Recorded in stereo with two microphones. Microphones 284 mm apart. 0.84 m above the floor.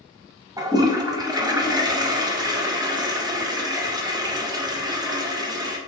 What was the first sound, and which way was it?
A toilet flushing, 15° right (ahead or behind).